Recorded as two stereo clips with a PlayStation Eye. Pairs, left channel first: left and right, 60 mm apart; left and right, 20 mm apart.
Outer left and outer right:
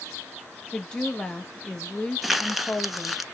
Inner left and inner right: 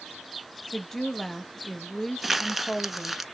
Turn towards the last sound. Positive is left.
turn(degrees=0)  # may be behind; listen again after turning